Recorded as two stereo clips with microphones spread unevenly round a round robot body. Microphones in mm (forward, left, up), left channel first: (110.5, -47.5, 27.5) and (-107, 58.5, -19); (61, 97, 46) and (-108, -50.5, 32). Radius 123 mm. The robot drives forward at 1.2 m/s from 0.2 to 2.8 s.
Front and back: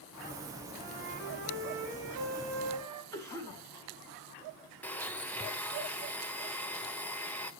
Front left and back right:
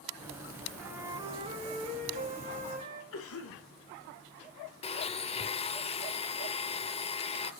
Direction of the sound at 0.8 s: 145° left.